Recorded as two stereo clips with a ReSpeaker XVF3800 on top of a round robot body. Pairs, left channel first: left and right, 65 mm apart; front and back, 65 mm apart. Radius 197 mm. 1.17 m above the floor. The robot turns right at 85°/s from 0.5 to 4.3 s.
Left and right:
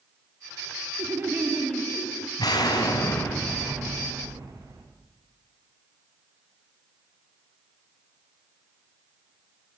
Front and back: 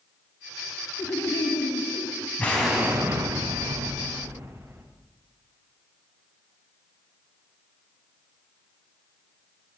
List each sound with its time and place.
1.0 s laughter: 50° right, 3.5 m; by 2.3 s 60° left, 3.5 m
2.4 s an explosion: 70° left, 4 m; by 4.8 s 125° right, 4 m